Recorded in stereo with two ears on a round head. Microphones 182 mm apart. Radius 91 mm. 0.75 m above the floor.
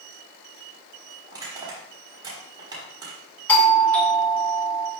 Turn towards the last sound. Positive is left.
turn(degrees=5)  # may be behind; listen again after turning